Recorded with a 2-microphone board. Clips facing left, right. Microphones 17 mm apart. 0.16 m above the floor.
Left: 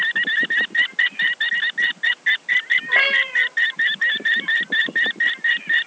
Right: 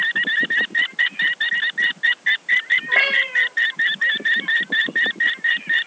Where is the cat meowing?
5° right (ahead or behind), 1.4 m.